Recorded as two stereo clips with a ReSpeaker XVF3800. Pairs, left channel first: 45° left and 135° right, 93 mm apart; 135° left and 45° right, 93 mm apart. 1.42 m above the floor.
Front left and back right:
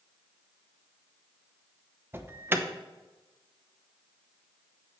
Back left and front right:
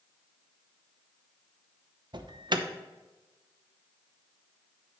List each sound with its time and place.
2.1 s an alarm: 70° right, 0.7 m